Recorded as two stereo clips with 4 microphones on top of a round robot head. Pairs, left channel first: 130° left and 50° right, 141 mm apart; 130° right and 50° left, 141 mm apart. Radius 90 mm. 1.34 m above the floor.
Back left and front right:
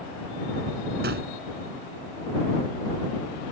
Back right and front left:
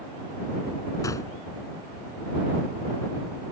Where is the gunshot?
65° right.